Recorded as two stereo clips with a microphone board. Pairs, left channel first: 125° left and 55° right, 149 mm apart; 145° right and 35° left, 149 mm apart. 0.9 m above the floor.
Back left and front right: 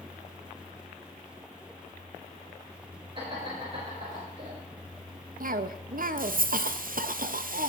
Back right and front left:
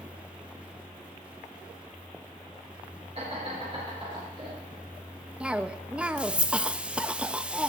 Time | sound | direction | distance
3.1 | laughter | 5° right | 3.5 m
5.4 | a cough | 50° right | 0.6 m